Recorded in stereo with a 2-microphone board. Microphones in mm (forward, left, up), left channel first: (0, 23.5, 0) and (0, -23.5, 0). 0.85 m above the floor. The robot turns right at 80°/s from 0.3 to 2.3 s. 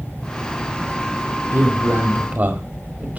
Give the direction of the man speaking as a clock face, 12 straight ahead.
4 o'clock.